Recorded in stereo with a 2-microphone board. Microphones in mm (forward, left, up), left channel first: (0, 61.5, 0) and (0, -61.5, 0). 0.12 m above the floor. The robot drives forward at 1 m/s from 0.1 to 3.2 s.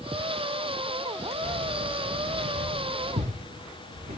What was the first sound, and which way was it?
Keys jangling, 80° right.